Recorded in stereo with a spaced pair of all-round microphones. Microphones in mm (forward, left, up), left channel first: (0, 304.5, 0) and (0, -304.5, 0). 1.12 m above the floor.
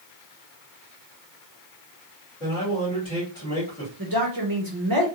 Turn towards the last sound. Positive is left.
turn(degrees=-35)  # may be behind; listen again after turning